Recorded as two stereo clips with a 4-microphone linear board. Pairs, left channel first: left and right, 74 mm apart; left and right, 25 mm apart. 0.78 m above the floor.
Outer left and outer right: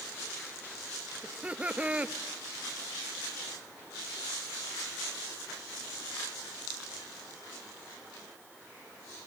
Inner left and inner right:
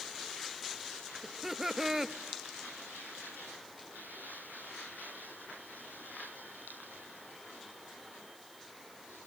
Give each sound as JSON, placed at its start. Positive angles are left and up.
{"t": 1.2, "sound": "laughter", "side_deg": -20, "distance_m": 0.8}